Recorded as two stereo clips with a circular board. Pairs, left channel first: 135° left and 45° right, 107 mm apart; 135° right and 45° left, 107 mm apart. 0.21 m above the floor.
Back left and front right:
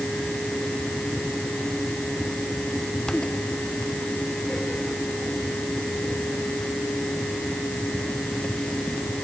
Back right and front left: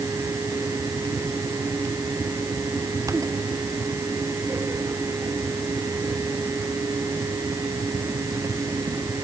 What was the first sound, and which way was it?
Only background noise.